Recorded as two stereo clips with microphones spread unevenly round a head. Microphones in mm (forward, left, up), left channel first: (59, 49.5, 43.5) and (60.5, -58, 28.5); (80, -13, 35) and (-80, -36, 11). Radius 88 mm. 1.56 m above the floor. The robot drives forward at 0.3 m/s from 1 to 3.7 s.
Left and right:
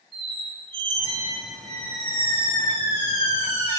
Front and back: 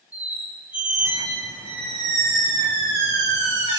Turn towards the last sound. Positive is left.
turn(degrees=-160)